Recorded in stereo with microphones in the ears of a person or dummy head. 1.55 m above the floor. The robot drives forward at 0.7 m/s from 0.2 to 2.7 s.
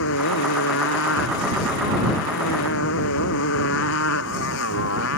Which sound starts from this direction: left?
A motorcycle, at 0.0 s.